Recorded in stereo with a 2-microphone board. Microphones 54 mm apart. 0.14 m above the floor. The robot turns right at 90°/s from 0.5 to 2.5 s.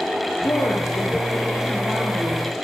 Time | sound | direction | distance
0.4 | a woman speaking | 85° left | 6.5 m